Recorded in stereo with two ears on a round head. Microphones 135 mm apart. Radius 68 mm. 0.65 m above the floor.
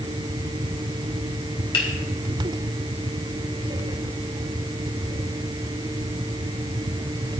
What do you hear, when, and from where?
1.7 s a finger snap: 35° left (ahead or behind), 2.5 m